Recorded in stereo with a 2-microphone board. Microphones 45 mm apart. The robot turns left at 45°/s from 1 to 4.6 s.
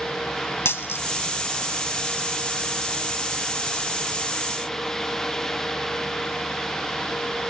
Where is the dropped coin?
70° left (ahead or behind), 1.1 m.